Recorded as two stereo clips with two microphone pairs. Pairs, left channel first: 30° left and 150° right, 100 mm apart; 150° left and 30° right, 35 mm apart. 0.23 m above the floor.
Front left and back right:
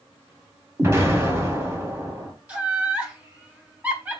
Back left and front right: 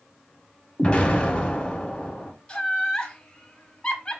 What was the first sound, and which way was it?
An explosion, 170° left.